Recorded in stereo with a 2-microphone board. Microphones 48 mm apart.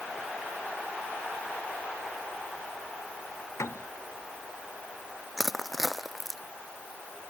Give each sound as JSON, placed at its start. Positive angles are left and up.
{"t": 3.6, "sound": "a piano", "side_deg": 85}
{"t": 5.4, "sound": "crushing", "side_deg": 0}